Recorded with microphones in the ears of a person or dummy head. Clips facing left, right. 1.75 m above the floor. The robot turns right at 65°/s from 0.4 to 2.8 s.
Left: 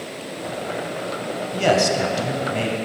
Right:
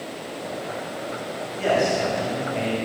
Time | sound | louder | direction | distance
1.5 | a man speaking | left 2 dB | 65° left | 1.8 m